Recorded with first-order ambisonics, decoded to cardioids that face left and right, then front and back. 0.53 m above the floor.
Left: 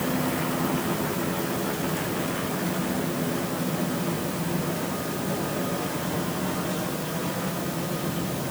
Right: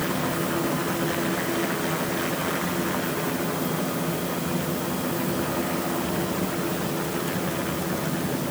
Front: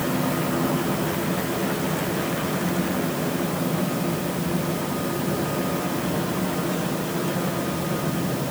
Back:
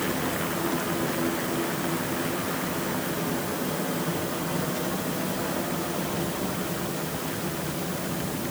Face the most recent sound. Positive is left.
No sound to turn to.